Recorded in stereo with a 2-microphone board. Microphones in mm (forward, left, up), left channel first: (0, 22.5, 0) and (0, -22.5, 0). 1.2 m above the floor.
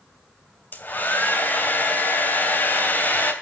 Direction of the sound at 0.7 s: 45° left (ahead or behind).